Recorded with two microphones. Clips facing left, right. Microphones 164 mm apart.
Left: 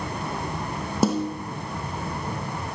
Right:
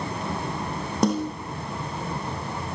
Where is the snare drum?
5° left (ahead or behind), 4 m.